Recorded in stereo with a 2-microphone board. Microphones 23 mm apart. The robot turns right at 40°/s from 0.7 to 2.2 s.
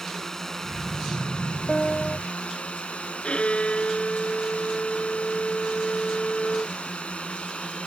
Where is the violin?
65° left (ahead or behind).